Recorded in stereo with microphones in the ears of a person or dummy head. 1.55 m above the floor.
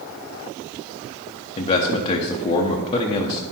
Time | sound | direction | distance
1.6 | a man speaking | 25° left (ahead or behind) | 0.7 m